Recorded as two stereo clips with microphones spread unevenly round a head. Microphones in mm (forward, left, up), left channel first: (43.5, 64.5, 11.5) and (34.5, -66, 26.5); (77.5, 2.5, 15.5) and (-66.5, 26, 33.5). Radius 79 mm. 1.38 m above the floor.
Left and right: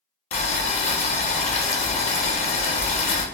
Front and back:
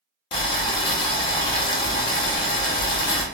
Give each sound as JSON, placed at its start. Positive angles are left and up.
{"t": 0.3, "sound": "boiling", "azimuth_deg": 50, "distance_m": 0.6}